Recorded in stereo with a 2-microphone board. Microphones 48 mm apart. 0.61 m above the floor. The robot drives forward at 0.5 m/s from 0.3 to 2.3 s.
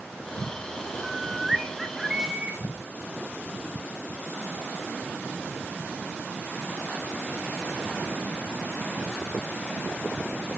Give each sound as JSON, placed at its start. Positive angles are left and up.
{"t": 1.0, "sound": "a bird", "side_deg": -10, "distance_m": 0.7}